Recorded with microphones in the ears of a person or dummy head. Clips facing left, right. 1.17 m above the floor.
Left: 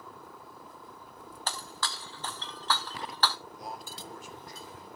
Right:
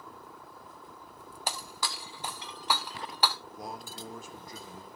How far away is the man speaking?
About 1.8 m.